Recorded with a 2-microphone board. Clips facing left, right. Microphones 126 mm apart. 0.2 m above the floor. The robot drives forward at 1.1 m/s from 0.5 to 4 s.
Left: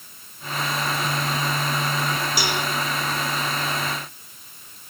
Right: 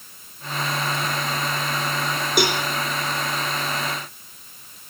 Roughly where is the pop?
I don't hear a pop.